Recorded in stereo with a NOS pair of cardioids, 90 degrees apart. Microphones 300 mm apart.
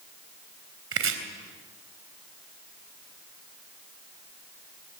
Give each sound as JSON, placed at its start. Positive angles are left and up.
{"t": 0.9, "sound": "chopping", "azimuth_deg": -45, "distance_m": 3.5}